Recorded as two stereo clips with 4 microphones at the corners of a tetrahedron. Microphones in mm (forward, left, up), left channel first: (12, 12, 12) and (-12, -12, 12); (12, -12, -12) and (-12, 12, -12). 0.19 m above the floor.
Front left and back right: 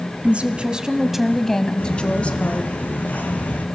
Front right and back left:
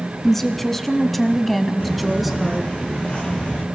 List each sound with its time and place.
0.2 s a woman speaking: 125° right, 1.7 m; by 2.7 s 50° left, 2.0 m
1.8 s footsteps: 5° left, 7 m; by 3.6 s 10° left, 5.5 m